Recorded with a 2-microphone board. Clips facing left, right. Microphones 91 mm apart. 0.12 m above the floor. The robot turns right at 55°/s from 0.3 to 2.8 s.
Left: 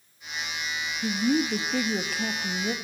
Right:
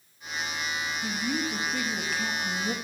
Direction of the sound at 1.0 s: 60° left.